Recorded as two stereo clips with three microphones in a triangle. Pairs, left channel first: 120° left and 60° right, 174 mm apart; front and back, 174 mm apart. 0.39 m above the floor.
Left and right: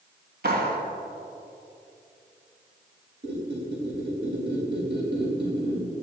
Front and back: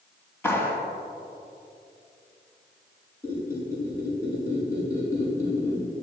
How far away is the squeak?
About 5 m.